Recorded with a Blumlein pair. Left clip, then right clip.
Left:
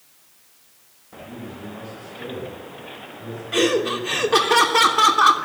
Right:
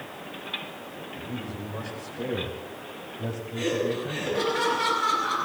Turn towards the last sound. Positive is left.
turn(degrees=50)